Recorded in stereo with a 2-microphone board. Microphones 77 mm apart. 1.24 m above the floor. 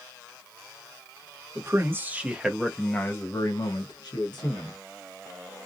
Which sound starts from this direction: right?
A man speaking, at 1.6 s.